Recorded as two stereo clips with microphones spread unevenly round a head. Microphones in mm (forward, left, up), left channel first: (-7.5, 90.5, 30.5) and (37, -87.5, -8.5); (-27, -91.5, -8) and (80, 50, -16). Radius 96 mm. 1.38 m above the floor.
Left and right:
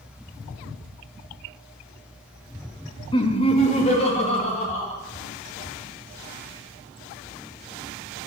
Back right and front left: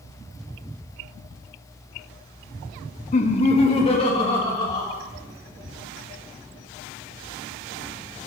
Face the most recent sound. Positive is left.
turn(degrees=165)